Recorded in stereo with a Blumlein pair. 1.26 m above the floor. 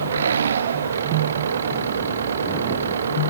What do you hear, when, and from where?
0.0 s an engine running: 70° right